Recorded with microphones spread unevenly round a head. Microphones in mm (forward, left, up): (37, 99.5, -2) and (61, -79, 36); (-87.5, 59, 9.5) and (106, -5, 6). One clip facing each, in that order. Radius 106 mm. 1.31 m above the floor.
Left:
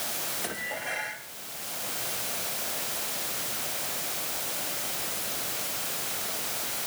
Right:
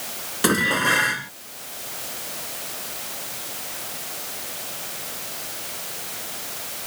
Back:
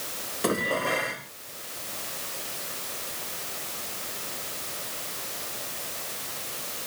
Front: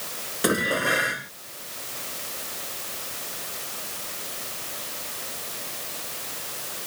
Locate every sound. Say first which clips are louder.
0.4 s dishes clattering: right 18 dB, front 2 dB; 95° right